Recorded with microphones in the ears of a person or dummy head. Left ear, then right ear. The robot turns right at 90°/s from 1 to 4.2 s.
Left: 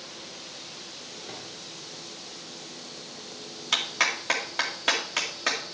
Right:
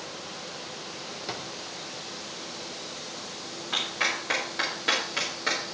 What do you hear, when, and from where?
1.3 s a drawer: 70° right (ahead or behind), 1.4 m; by 1.5 s 60° right (ahead or behind), 1.4 m
3.7 s a clap: 80° left, 2 m; by 5.6 s 40° left (ahead or behind), 2 m